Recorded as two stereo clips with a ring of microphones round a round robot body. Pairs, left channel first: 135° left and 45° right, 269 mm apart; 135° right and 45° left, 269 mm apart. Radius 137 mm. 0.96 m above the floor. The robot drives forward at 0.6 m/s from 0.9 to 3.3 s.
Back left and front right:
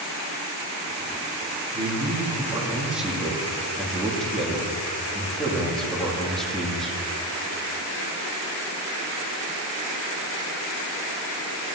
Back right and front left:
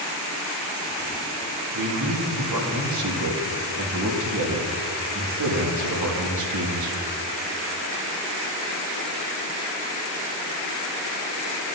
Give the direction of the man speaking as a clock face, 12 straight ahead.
11 o'clock.